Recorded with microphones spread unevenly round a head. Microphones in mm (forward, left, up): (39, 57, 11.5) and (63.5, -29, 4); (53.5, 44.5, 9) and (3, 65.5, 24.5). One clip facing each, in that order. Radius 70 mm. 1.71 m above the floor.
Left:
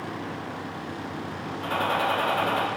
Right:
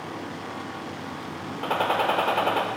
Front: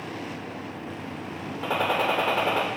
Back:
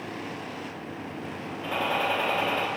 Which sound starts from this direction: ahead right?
A gunshot, at 1.6 s.